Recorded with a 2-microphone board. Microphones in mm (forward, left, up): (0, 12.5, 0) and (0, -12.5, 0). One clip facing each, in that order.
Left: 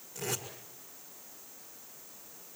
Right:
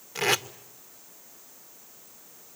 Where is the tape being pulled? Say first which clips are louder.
Right 12 dB; 70° right (ahead or behind), 1.8 m.